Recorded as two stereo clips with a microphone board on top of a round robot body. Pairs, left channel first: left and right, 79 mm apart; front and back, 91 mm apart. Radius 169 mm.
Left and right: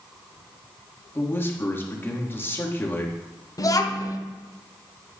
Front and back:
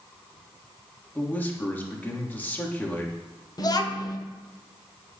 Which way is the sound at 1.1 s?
55° left.